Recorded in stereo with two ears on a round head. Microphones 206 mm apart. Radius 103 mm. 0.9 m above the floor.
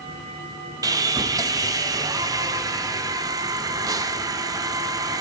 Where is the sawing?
15° right (ahead or behind), 0.5 m.